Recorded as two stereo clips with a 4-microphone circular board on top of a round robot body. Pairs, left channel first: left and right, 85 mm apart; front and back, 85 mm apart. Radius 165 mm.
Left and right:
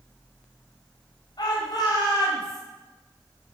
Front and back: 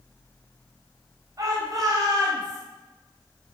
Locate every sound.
1.4 s a shout: 130° left, 4 m; by 2.6 s 140° left, 3.5 m